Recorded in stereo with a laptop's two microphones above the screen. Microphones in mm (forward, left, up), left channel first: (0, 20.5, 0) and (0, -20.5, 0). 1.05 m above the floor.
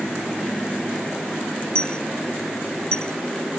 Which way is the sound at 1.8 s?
25° left (ahead or behind).